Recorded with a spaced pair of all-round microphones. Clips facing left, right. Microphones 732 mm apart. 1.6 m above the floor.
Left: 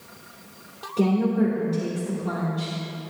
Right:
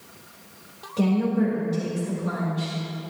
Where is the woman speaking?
15° right (ahead or behind), 2.5 m.